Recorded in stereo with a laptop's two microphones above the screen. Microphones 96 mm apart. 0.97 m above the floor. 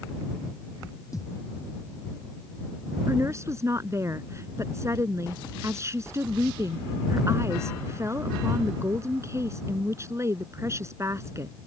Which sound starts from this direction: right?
A woman speaking, at 3.1 s.